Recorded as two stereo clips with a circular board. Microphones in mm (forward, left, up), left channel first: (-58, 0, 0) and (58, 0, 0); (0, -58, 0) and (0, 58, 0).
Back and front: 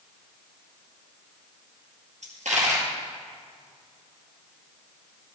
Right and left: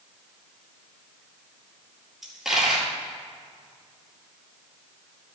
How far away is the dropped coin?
About 2 m.